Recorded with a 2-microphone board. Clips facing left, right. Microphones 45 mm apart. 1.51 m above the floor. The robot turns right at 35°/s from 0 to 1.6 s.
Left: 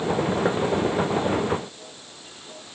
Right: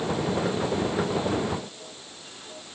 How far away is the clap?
No clap in this recording.